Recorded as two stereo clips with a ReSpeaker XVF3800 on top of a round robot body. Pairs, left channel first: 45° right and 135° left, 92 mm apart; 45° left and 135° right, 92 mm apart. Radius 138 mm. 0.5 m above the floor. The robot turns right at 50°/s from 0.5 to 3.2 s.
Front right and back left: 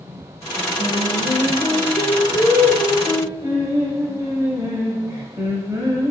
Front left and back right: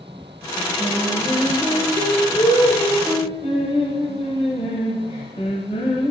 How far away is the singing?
About 0.8 m.